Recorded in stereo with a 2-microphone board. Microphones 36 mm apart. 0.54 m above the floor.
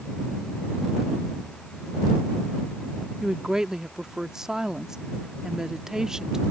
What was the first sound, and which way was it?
A woman speaking, 15° right (ahead or behind).